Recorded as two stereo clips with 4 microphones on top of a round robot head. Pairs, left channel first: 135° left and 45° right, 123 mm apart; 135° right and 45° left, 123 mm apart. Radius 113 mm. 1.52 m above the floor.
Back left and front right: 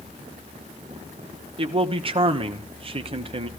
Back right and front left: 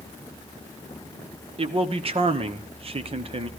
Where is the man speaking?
Straight ahead, 1.0 m.